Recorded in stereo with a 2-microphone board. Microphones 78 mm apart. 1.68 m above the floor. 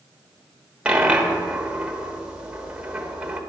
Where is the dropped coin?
15° right (ahead or behind), 1.2 m.